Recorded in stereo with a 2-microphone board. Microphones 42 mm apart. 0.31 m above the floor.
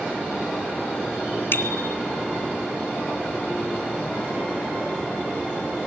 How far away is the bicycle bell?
About 2 m.